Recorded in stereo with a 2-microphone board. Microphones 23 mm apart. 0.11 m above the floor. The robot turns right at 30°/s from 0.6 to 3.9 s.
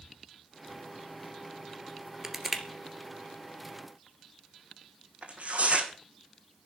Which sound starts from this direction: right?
Tearing paper, at 5.2 s.